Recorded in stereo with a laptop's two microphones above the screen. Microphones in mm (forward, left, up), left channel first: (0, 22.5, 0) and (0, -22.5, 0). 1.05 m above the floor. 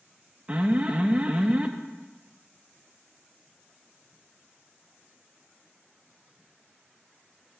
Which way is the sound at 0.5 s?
30° right (ahead or behind).